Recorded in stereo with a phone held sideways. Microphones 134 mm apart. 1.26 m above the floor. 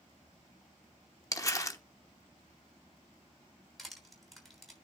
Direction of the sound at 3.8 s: Centre (ahead or behind).